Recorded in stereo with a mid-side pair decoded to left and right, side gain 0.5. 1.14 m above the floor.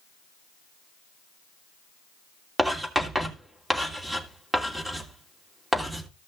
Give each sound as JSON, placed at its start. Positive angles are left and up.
{"t": 2.6, "sound": "writing", "azimuth_deg": -10, "distance_m": 3.0}